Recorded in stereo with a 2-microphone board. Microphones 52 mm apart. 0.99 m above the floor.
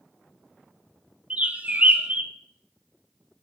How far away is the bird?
About 0.6 m.